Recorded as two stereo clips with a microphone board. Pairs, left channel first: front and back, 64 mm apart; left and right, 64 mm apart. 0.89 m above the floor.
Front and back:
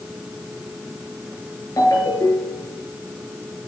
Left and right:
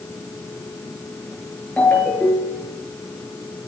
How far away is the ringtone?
About 8 m.